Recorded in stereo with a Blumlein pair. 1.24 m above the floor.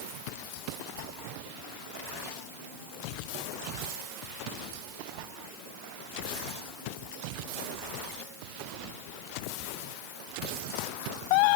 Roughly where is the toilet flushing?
I don't hear a toilet flushing.